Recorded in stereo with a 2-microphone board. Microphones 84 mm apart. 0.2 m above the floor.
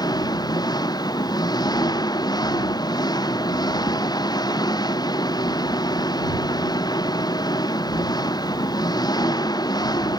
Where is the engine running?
55° left (ahead or behind).